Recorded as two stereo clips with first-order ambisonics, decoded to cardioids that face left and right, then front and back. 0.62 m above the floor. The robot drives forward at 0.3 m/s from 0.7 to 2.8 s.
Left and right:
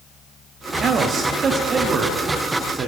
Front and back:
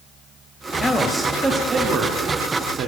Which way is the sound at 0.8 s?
75° right.